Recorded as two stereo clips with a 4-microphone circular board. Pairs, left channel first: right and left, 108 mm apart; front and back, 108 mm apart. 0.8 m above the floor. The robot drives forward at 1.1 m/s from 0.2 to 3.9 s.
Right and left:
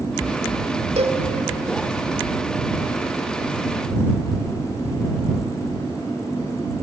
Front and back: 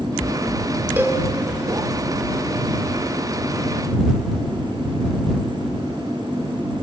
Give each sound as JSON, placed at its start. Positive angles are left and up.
{"t": 1.0, "sound": "a cowbell", "azimuth_deg": 105, "distance_m": 1.5}